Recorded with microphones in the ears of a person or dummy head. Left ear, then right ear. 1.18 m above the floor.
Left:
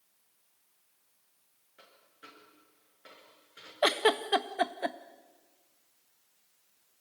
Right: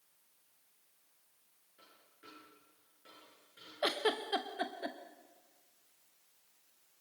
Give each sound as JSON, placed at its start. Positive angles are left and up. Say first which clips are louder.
{"t": 1.8, "sound": "a dropped coin", "louder": "left 5 dB", "side_deg": 40, "distance_m": 8.5}
{"t": 3.8, "sound": "a giggle", "louder": "left 7 dB", "side_deg": 25, "distance_m": 0.8}